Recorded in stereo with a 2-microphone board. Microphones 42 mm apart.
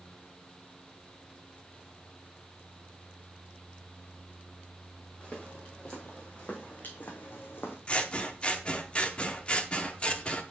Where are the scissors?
30° left (ahead or behind), 0.6 m.